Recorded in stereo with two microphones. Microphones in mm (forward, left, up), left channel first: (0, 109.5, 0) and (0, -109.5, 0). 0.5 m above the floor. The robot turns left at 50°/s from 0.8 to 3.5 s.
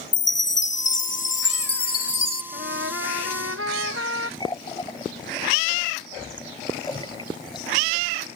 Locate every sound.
0.1 s a chime: 105° left; by 2.4 s 25° left
2.5 s a trumpet: 45° right; by 4.3 s 95° right
4.4 s a running tap: 20° left (ahead or behind)